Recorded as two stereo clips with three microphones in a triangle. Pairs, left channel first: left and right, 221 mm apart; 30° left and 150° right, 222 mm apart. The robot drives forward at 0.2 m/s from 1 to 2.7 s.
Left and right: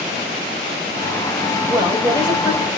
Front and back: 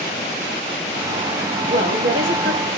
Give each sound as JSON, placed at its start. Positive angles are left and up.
{"t": 1.7, "sound": "a woman speaking", "azimuth_deg": -160, "distance_m": 1.6}